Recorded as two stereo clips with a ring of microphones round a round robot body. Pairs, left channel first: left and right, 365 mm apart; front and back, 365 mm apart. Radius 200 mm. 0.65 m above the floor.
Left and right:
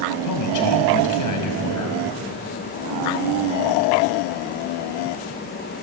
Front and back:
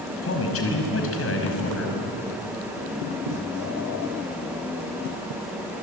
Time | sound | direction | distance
0.2 | a man speaking | 55° left | 5.5 m